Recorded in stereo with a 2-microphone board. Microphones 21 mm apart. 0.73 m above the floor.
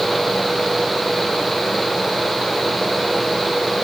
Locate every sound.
Only background noise.